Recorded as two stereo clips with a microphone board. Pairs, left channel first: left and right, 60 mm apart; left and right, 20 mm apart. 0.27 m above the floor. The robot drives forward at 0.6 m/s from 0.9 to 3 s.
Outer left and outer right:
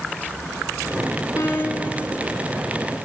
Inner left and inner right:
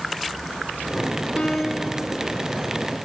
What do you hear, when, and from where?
1.4 s a piano: 60° left (ahead or behind), 2.5 m; by 2.0 s 55° left (ahead or behind), 2.5 m